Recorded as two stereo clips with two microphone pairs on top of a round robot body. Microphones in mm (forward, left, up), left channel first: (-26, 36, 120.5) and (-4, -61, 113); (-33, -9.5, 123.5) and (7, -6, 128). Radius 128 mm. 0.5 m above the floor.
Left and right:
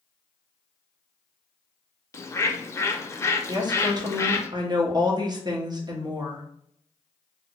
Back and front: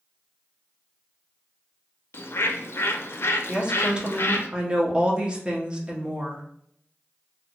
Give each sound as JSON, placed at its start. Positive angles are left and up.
{"t": 2.1, "sound": "a bird", "azimuth_deg": 165, "distance_m": 0.6}
{"t": 3.5, "sound": "a woman speaking", "azimuth_deg": -65, "distance_m": 1.2}